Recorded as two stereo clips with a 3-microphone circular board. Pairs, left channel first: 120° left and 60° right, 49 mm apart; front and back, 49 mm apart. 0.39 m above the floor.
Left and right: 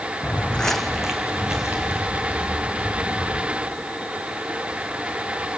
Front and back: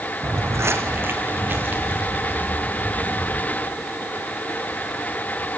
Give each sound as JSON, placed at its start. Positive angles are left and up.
{"t": 0.2, "sound": "footsteps", "azimuth_deg": 165, "distance_m": 1.1}